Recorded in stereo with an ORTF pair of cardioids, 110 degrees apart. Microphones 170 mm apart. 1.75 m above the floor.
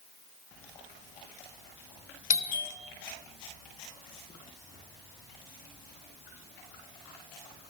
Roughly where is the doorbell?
Ahead left.